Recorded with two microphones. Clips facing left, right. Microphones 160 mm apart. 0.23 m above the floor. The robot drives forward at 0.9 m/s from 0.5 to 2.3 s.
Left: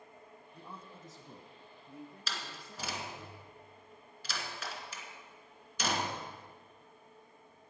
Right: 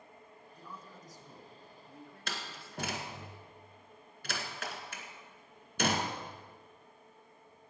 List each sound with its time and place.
0.5 s a man speaking: 35° left (ahead or behind), 1.6 m; by 3.3 s 20° left (ahead or behind), 2.5 m
2.3 s a door slam: 60° right (ahead or behind), 1.9 m